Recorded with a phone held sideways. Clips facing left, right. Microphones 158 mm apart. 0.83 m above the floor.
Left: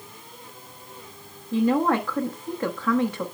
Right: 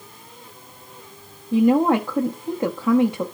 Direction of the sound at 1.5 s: 20° right (ahead or behind).